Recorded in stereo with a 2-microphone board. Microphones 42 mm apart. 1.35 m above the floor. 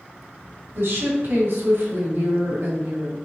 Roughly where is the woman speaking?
Right.